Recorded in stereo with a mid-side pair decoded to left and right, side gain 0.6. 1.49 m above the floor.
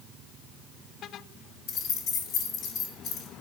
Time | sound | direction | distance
1.7 | keys jangling | 65° left | 2.5 m